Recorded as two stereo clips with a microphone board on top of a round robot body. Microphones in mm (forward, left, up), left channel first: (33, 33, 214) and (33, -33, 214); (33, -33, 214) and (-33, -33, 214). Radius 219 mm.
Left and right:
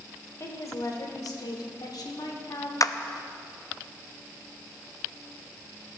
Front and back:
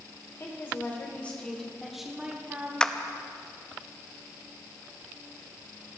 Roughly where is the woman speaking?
Ahead left.